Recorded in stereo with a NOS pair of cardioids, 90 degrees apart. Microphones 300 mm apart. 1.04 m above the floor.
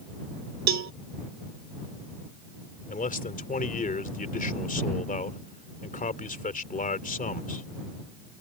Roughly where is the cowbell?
Ahead right.